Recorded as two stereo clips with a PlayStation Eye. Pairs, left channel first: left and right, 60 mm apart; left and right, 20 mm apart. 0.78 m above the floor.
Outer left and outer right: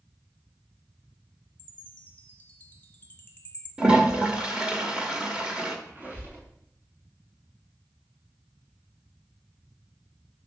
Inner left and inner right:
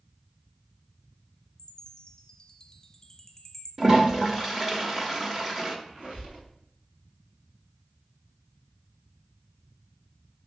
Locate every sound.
1.6 s a chime: 25° left (ahead or behind), 1.2 m
3.8 s a toilet flushing: 15° right (ahead or behind), 1.4 m
5.9 s a squeak: 25° right (ahead or behind), 4.5 m